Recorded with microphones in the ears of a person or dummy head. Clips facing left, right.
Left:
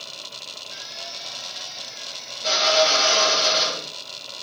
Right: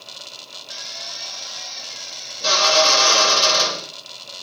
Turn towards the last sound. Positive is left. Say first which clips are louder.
# right 1 dB
turn(degrees=-80)